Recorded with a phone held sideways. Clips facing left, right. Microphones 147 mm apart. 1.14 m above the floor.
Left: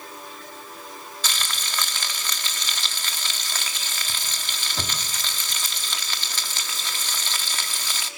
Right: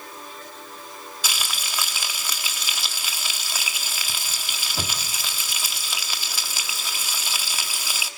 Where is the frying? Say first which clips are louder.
Even; 10° right (ahead or behind), 1.4 m.